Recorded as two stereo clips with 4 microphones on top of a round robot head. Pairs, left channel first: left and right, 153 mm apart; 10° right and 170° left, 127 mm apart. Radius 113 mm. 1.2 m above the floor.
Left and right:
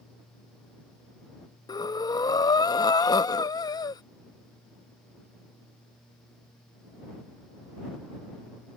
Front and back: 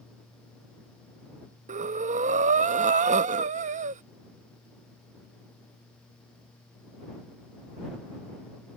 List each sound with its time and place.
1.7 s breathing: 155° left